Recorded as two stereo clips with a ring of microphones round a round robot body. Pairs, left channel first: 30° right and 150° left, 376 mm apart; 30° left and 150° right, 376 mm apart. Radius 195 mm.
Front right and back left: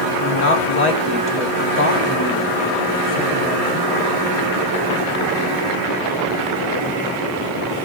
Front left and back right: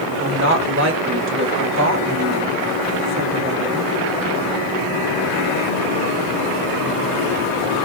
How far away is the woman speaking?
About 1.2 m.